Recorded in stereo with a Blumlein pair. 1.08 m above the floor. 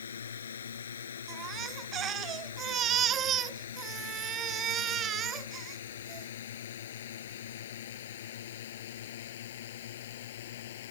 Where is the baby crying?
25° right.